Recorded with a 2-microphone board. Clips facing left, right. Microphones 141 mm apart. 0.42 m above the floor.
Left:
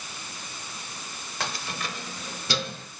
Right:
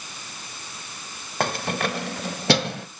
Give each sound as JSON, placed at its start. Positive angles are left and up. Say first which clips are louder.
{"t": 1.4, "sound": "keys jangling", "louder": "right 9 dB", "side_deg": -50, "distance_m": 0.9}